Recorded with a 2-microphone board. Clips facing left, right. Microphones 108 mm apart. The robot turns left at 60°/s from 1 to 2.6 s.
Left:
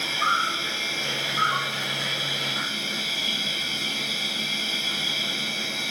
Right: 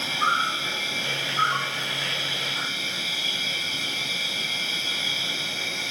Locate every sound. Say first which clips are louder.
0.0 s an insect: even; 160° right, 1.5 m; by 5.9 s 105° left, 1.5 m